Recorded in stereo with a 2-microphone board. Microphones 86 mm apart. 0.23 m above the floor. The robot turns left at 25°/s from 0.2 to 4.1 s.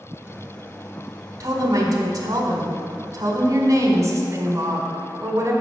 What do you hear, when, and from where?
1.4 s a woman speaking: 60° right, 1.4 m; by 5.5 s 125° right, 1.4 m